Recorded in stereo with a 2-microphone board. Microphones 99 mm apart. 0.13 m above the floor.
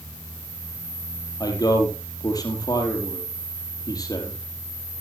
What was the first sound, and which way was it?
A man speaking, 40° left (ahead or behind).